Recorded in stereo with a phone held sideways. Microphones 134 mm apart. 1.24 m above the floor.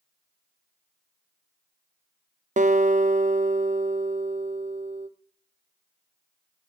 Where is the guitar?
65° right (ahead or behind), 0.6 m.